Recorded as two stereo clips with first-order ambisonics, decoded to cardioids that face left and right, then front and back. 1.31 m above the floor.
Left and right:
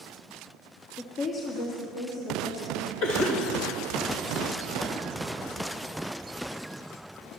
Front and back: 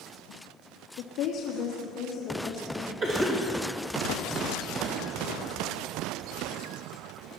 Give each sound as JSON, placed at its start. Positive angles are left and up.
{"t": 1.0, "sound": "a woman speaking", "azimuth_deg": 35, "distance_m": 0.8}
{"t": 3.0, "sound": "a cough", "azimuth_deg": 120, "distance_m": 2.0}